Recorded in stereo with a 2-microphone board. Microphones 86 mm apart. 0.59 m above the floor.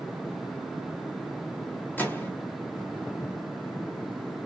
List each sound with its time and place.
2.0 s a microwave: 20° left (ahead or behind), 1.1 m